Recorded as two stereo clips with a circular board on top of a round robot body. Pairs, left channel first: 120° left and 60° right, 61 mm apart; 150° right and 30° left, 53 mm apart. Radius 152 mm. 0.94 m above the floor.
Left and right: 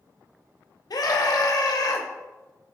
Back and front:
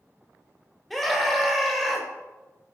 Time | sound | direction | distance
0.9 | a scream | 120° left | 1.4 m